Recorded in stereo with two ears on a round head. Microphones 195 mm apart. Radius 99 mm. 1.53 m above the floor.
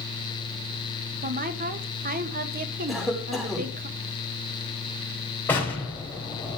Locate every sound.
1.2 s a woman speaking: 45° right (ahead or behind), 1.7 m
2.9 s a cough: centre (ahead or behind), 5 m
5.5 s an explosion: 10° left (ahead or behind), 4 m